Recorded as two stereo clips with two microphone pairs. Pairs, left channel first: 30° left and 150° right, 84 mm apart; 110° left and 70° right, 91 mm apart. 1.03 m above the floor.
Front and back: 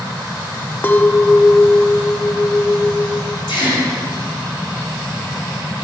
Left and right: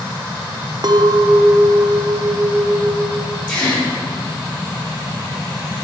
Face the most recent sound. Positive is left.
turn(degrees=35)